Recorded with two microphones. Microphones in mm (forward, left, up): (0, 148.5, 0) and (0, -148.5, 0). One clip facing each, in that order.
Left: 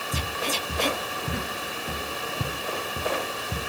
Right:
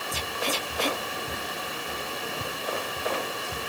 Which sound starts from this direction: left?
Footsteps, at 0.1 s.